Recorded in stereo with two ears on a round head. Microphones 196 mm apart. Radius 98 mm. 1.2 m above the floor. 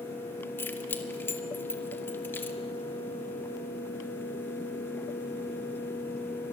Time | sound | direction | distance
0.6 | keys jangling | 10° left (ahead or behind) | 1.8 m